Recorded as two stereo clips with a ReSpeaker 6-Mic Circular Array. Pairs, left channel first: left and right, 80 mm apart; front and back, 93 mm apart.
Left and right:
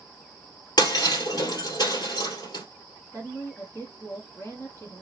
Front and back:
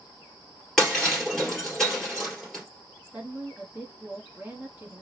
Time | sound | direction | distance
0.8 | breaking glass | 85° left | 2 m
3.1 | a woman speaking | 115° left | 1.8 m